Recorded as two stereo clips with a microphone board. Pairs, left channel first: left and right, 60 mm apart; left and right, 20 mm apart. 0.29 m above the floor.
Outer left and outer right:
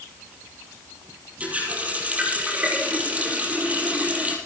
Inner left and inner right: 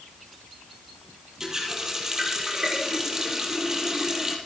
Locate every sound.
1.4 s a running tap: 25° right (ahead or behind), 5.5 m